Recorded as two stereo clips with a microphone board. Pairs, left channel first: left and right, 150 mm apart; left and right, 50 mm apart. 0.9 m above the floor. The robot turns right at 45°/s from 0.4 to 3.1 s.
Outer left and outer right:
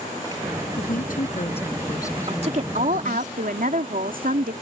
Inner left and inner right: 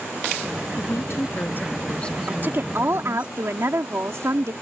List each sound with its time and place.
0.8 s a woman speaking: 100° left; by 3.3 s 155° right
2.3 s a woman speaking: 140° right; by 4.5 s 100° right